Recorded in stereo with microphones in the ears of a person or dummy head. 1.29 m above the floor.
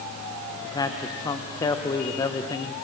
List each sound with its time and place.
0.6 s a man speaking: 20° left (ahead or behind), 1.0 m